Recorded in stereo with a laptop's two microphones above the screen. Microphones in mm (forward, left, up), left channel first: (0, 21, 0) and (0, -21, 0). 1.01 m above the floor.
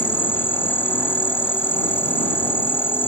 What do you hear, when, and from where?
0.0 s an insect: 55° left (ahead or behind)